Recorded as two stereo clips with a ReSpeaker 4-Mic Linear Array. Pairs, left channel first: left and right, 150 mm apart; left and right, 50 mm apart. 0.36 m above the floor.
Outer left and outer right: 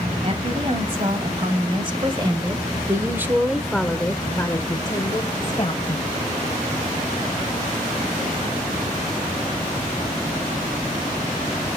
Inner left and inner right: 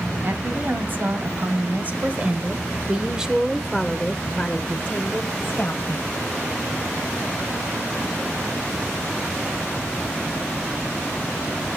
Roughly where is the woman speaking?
Right.